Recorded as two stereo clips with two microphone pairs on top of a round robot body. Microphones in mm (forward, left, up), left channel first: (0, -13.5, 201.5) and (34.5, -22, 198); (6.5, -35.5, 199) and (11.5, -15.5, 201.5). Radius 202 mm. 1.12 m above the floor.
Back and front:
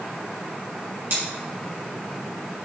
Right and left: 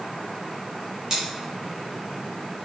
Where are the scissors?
10° left, 3 m.